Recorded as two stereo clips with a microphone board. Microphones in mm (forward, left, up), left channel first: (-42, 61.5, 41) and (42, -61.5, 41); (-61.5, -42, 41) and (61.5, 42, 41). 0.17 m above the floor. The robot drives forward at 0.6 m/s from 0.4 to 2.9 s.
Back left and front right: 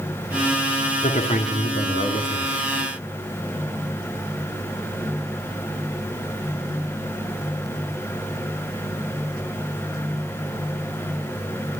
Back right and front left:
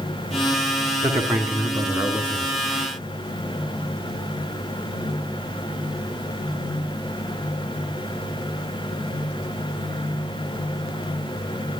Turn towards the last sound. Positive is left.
turn(degrees=120)